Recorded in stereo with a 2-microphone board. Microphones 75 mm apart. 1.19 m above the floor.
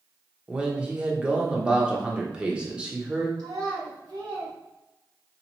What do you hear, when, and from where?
0.5 s a man speaking: 10° right (ahead or behind), 0.8 m
3.4 s a child speaking: 70° right (ahead or behind), 1.8 m